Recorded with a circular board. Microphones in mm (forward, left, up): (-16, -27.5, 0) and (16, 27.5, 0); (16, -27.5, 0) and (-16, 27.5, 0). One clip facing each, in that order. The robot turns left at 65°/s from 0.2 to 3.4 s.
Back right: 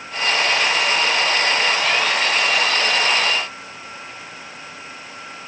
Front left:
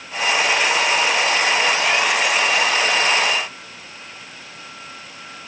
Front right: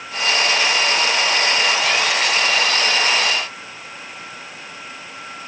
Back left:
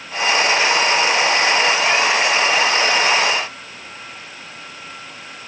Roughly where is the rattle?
I don't hear a rattle.